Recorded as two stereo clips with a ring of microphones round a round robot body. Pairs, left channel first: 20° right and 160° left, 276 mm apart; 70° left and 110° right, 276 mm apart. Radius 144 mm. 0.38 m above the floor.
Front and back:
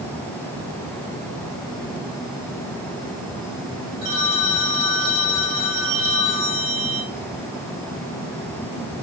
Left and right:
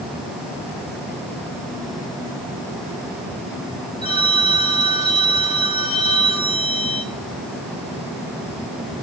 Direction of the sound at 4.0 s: 140° left.